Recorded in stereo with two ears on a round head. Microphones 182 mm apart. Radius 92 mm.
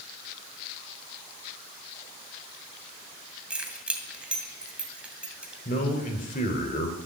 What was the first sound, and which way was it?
Keys jangling, 5° right (ahead or behind).